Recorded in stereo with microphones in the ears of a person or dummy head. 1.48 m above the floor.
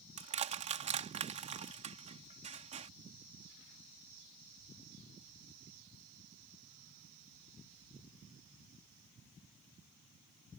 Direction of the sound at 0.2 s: 30° right (ahead or behind).